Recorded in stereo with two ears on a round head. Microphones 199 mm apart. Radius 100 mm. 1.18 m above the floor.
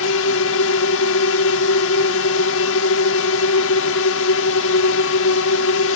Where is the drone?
65° left (ahead or behind).